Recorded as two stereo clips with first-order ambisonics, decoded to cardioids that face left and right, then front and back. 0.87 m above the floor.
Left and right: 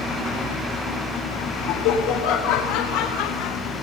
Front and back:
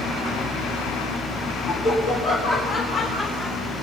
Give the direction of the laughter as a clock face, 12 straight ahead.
10 o'clock.